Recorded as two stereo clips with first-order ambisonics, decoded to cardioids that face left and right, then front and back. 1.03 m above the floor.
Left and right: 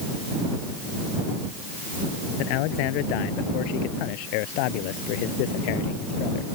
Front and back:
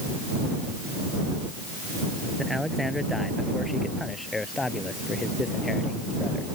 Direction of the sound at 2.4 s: 90° left.